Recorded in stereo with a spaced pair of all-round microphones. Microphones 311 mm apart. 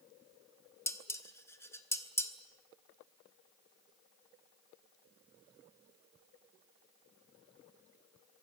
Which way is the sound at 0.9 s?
10° left (ahead or behind).